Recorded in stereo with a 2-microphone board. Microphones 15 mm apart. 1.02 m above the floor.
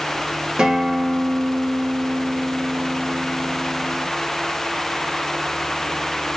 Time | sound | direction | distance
0.6 | a guitar | 60° right (ahead or behind) | 1.1 m